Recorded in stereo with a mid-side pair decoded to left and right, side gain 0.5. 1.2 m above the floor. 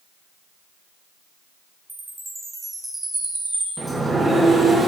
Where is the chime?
15° right, 2.0 m.